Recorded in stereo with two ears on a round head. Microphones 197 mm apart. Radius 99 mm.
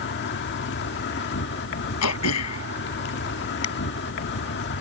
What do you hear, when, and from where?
0.0 s an insect: 55° left (ahead or behind)
2.0 s throat clearing: 85° left